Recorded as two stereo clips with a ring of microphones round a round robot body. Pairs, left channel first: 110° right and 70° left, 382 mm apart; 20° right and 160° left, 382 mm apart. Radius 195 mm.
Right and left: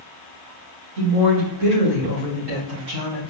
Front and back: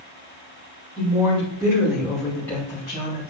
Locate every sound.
1.0 s a woman speaking: 90° left, 2.5 m; by 3.3 s 45° left, 3 m